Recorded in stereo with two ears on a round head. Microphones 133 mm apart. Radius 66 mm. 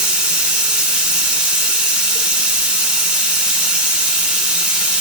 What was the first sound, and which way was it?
Running water, 5° right (ahead or behind).